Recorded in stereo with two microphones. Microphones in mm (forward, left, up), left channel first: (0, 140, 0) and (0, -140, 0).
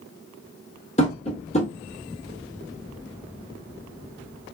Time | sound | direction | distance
1.0 | tapping | 25° left (ahead or behind) | 1.0 m